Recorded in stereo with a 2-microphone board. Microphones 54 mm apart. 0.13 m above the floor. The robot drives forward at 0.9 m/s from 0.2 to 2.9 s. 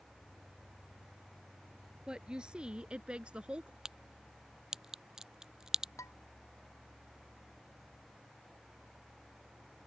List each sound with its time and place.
2.1 s a woman speaking: 15° right (ahead or behind); by 3.8 s 20° right (ahead or behind)
3.9 s a crack: 10° right (ahead or behind)
6.0 s dishes clattering: 70° left (ahead or behind)